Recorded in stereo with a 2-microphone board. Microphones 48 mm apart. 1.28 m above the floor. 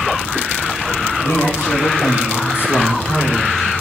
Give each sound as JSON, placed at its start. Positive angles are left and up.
{"t": 1.2, "sound": "a man speaking", "side_deg": 85, "distance_m": 3.0}